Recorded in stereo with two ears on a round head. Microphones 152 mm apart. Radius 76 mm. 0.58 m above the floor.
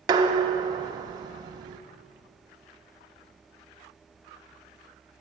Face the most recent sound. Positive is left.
turn(degrees=-25)  # may be behind; listen again after turning